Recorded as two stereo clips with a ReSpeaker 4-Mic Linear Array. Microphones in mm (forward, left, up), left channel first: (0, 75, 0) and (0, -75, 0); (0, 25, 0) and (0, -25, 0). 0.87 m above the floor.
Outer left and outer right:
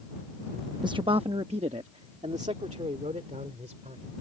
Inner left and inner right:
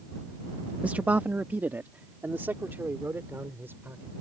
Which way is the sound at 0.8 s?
30° right (ahead or behind).